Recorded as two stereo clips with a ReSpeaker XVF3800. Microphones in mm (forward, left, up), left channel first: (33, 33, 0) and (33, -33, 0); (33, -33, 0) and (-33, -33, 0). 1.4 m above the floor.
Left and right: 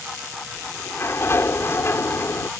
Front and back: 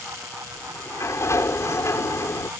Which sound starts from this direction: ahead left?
A sliding door, at 0.6 s.